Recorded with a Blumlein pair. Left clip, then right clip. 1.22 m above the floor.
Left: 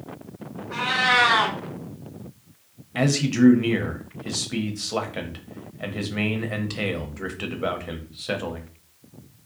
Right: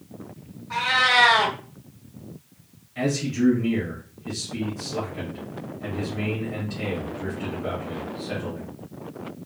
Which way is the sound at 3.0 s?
50° left.